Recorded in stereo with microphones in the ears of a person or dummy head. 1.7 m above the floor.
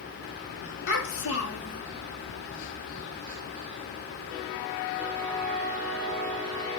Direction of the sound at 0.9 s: 70° left (ahead or behind).